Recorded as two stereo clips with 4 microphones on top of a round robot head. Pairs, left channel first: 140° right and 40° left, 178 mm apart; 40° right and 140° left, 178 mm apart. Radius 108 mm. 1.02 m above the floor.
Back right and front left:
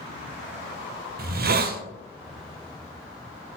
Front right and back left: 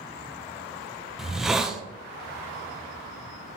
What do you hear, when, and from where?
1.2 s a hiss: 50° left, 0.5 m